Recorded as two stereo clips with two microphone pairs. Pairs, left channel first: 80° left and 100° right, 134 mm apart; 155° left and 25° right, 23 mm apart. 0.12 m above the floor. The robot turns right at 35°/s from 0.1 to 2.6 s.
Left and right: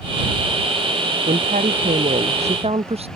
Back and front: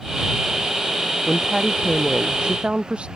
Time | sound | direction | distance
1.3 | a woman speaking | 105° right | ?